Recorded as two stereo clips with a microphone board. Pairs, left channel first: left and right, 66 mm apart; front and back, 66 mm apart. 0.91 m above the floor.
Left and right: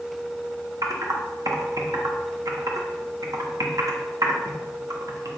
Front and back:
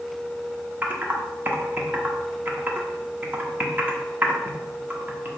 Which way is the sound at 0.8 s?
115° right.